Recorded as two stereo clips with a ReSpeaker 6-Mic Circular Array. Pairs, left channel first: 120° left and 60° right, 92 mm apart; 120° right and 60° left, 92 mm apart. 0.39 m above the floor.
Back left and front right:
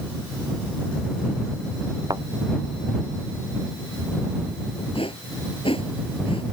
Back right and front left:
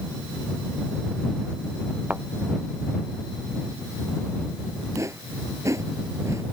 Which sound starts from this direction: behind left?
A whoosh, at 5.0 s.